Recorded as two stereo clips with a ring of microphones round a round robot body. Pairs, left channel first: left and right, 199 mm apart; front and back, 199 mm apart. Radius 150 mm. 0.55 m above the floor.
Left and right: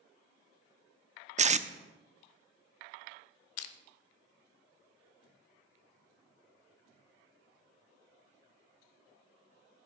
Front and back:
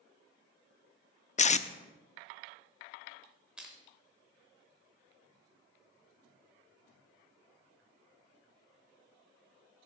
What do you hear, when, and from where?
1.4 s tape being pulled: 45° right, 0.6 m
3.6 s crushing: 95° left, 0.7 m